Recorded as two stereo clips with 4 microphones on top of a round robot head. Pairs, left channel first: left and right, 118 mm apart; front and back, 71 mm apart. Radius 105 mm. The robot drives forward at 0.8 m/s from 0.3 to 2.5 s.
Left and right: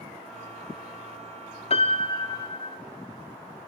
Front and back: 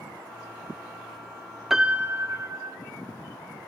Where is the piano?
95° left, 0.8 m; by 2.8 s 140° left, 1.1 m.